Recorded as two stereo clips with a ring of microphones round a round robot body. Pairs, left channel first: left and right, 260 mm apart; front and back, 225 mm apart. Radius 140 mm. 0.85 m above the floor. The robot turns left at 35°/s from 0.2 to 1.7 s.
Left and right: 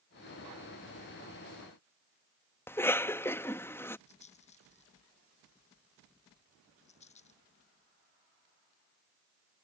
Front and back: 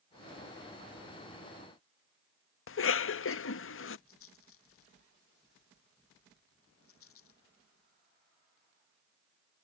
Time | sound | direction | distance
2.7 | a cough | 10° left | ?
4.1 | a rattle | 25° left | ?